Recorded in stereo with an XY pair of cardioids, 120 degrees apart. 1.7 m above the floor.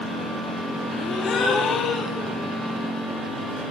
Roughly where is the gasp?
Ahead left.